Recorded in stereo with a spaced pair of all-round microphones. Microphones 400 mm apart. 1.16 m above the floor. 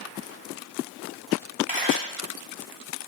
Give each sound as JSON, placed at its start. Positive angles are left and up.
{"t": 1.7, "sound": "a camera shutter", "side_deg": -20, "distance_m": 2.5}